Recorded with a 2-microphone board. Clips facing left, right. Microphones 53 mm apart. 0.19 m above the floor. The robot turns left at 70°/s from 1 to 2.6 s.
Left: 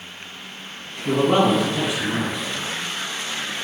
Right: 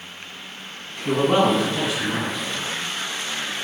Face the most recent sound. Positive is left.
turn(degrees=105)